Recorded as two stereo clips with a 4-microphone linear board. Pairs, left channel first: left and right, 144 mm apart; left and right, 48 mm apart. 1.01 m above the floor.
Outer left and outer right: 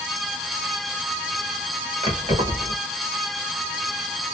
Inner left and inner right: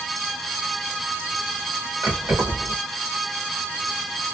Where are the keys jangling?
50° right (ahead or behind), 1.3 m.